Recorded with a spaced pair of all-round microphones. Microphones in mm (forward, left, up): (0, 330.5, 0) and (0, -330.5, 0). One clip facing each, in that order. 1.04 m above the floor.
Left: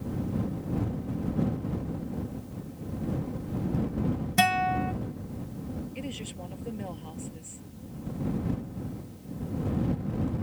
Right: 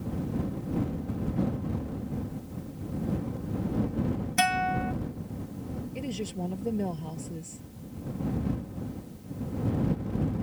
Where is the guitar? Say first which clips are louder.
Left 2 dB; 65° left (ahead or behind).